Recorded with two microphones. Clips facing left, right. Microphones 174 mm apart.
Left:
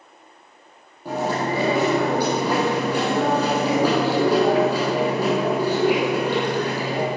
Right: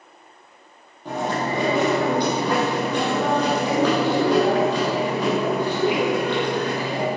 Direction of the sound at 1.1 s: 10° left (ahead or behind).